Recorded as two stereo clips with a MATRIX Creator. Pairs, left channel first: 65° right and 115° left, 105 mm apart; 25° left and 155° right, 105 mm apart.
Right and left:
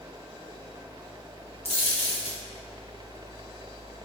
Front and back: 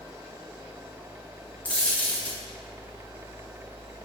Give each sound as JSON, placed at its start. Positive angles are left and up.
{"t": 1.6, "sound": "a dropped coin", "azimuth_deg": -55, "distance_m": 3.5}